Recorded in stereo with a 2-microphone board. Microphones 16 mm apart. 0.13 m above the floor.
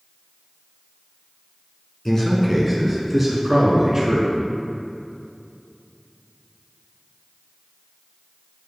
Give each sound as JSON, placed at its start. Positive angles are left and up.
{"t": 2.0, "sound": "a man speaking", "side_deg": 20, "distance_m": 1.1}